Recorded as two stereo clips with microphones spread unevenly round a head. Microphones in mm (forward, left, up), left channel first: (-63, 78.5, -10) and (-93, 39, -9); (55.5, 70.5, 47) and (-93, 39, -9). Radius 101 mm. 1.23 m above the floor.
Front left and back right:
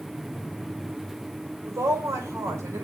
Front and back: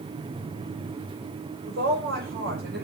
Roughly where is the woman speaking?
Behind right.